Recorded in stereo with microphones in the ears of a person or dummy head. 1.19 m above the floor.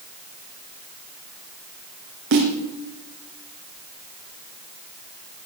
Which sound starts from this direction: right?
A snare drum, at 2.3 s.